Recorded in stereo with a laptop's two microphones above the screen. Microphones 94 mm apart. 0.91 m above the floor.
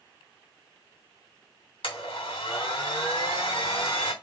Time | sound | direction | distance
1.8 | a blender | 75° left (ahead or behind) | 3 m